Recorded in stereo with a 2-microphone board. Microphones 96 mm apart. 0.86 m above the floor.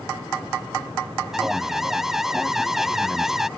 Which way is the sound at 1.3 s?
5° right (ahead or behind).